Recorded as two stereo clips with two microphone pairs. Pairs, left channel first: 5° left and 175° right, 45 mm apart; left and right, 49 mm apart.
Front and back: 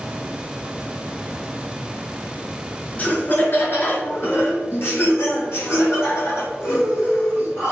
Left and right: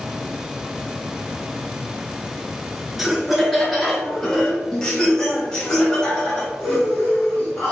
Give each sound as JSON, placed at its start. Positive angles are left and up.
{"t": 3.0, "sound": "laughter", "azimuth_deg": -5, "distance_m": 1.5}